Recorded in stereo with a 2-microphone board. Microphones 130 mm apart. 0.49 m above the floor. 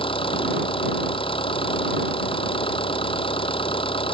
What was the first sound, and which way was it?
An engine running, 40° left (ahead or behind).